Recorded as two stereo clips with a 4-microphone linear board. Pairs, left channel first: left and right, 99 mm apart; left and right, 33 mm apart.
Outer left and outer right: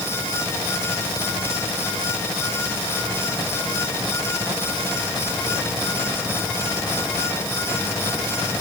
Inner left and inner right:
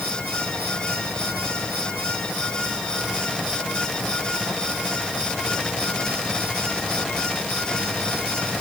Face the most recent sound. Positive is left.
No sound to turn to.